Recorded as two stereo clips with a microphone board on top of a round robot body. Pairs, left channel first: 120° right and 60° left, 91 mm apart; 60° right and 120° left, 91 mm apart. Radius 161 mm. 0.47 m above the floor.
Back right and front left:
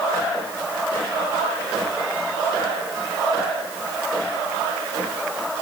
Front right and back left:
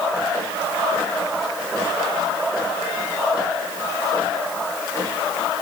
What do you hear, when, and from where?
Only background noise.